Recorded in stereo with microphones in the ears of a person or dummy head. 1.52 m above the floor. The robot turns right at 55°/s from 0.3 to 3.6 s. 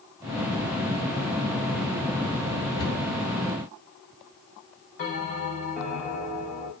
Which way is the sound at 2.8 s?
25° left (ahead or behind).